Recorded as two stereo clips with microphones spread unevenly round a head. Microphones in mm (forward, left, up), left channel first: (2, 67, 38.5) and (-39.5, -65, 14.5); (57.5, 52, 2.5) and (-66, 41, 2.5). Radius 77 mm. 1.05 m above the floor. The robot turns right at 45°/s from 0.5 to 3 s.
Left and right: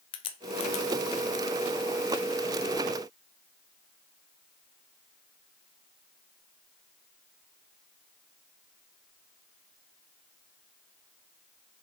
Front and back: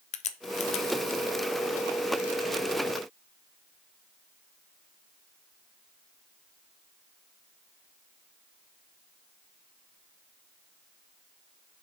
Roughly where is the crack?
Ahead.